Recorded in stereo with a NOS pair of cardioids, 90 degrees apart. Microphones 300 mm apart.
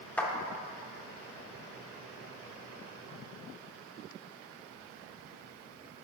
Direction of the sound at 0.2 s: 5° left.